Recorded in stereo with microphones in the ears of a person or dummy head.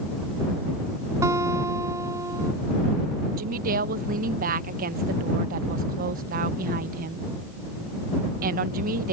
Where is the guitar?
20° right (ahead or behind).